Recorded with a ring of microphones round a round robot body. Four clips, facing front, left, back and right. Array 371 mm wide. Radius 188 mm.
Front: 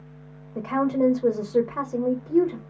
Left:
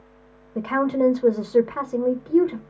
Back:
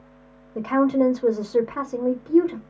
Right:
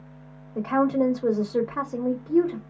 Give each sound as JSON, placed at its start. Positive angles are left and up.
{"t": 0.6, "sound": "a woman speaking", "azimuth_deg": 125, "distance_m": 0.9}